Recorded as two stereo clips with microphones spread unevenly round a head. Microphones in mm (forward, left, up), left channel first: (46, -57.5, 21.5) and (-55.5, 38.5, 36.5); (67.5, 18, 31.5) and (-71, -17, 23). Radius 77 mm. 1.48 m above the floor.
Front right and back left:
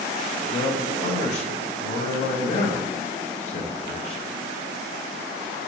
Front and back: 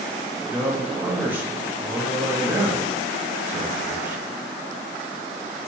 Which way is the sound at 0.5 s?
90° right.